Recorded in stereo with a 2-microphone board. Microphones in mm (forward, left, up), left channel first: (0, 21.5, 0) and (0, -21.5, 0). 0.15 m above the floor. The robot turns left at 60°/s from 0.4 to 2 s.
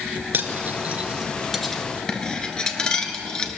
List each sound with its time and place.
0.3 s cutlery clinking: 50° right (ahead or behind), 1.3 m; by 3.6 s 20° left (ahead or behind), 1.3 m